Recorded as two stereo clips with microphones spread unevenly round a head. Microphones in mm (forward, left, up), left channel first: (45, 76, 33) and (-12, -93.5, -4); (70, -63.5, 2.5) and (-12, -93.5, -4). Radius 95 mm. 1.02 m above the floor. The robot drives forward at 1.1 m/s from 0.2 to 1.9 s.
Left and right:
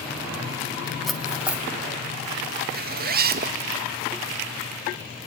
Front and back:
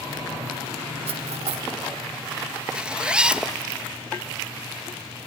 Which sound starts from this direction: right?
A zipper, at 2.8 s.